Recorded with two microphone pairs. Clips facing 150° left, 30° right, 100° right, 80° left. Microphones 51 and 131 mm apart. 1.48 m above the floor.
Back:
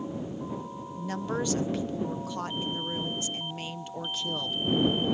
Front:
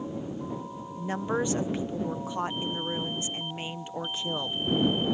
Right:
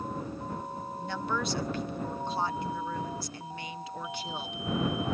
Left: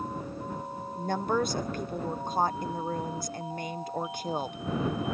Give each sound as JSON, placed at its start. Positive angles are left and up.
{"t": 1.0, "sound": "a woman speaking", "azimuth_deg": 35}